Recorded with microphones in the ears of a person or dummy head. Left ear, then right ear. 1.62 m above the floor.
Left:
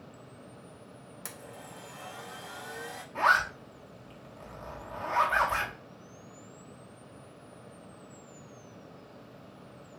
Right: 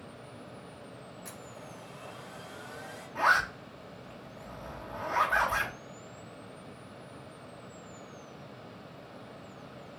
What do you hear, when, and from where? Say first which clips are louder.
1.2 s a blender: left 3 dB; 75° left (ahead or behind), 1.4 m
3.1 s a zipper: left 1 dB; 5° left (ahead or behind), 1.0 m